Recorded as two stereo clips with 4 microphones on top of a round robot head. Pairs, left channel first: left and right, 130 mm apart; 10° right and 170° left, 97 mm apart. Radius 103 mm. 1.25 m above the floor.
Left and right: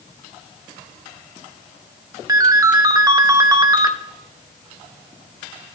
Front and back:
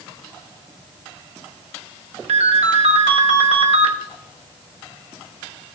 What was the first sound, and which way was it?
A ringtone, 155° right.